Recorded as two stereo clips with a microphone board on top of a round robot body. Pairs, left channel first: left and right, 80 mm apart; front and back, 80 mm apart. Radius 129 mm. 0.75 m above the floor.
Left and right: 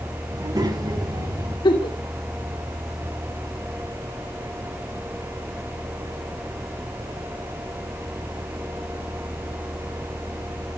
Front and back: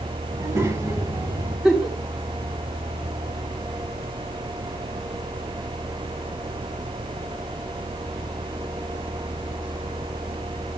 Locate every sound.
0.3 s a child speaking: 130° right, 6.5 m
1.6 s a giggle: 95° left, 4 m